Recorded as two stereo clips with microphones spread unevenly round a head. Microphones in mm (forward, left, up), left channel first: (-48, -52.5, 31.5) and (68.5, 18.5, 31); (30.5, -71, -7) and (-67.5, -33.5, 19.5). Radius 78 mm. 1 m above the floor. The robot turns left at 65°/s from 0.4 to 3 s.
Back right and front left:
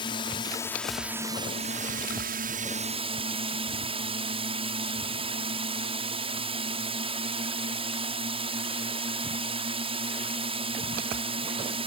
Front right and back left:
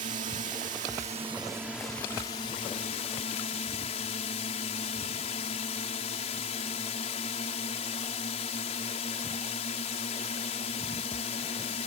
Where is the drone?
155° left; by 11.9 s 15° right.